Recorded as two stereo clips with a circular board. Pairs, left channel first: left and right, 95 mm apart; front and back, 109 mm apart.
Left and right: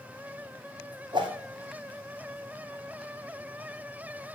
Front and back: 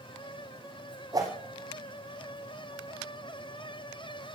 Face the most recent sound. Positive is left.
turn(degrees=-125)